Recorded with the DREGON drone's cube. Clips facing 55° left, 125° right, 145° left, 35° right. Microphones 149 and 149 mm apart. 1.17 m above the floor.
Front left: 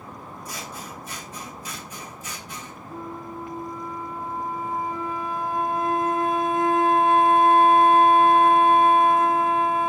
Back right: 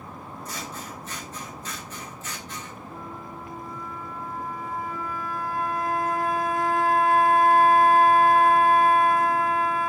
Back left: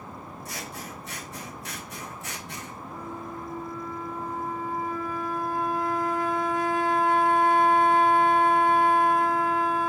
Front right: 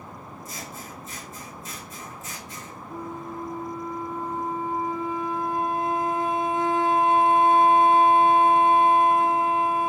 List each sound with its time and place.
0.5 s scissors: 135° left, 0.9 m
2.9 s a flute: 10° left, 0.5 m